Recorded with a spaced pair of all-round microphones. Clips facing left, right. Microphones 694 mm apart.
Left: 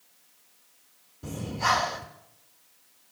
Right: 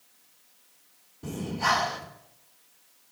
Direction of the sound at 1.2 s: 15° left (ahead or behind).